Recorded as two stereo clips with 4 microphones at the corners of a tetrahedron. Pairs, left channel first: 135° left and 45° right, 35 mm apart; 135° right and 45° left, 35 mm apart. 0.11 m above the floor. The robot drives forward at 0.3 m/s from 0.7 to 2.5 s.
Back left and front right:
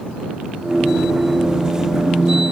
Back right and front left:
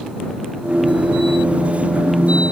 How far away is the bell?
I don't hear a bell.